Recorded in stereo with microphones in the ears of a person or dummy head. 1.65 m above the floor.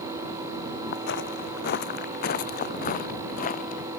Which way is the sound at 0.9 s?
65° left (ahead or behind).